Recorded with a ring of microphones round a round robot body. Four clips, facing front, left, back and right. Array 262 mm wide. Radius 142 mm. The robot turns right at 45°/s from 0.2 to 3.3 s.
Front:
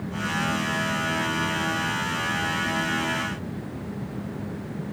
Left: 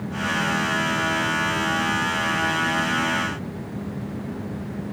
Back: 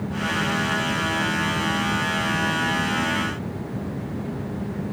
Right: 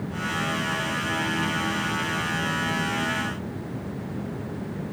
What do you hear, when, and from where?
Only background noise.